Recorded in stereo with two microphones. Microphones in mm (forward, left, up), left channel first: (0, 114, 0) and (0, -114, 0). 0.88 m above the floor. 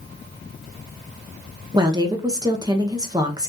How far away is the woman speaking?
About 0.6 m.